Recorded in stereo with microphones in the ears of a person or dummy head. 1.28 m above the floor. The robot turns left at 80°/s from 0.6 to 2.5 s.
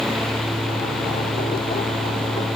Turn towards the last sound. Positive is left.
No sound to turn to.